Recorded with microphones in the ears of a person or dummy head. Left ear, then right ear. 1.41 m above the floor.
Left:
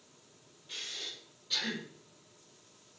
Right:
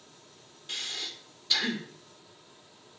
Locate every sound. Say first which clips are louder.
0.7 s breathing: right 5 dB; 40° right (ahead or behind), 0.6 m